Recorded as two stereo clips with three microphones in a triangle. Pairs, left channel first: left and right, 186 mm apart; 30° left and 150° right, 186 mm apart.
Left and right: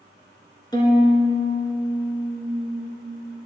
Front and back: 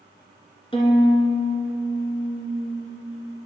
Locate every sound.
0.7 s a violin: 50° left, 1.7 m